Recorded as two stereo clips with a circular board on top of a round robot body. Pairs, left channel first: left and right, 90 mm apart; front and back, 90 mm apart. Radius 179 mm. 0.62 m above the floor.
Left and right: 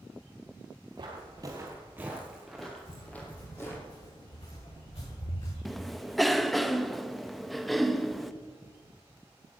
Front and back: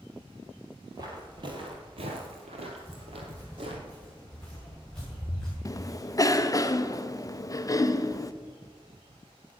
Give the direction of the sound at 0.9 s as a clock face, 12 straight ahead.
4 o'clock.